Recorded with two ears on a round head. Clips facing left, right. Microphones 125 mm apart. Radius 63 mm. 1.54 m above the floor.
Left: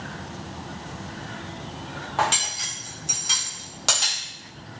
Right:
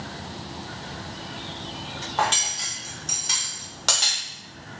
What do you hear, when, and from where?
2.2 s cutlery clinking: 5° left (ahead or behind), 0.8 m